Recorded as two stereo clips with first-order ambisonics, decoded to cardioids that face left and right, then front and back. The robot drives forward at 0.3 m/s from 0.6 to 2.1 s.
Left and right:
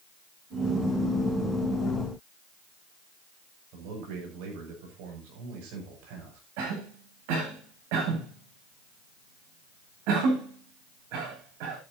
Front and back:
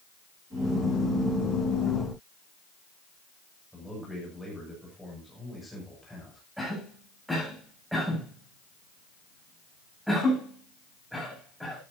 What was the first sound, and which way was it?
A man speaking, 90° right.